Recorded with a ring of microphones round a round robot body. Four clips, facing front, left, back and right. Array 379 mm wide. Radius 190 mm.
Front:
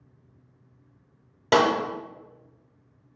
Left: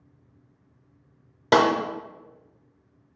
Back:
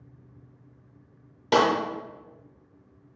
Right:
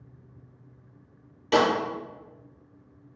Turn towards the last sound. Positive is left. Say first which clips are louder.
# left 3 dB, front 1 dB
turn(degrees=60)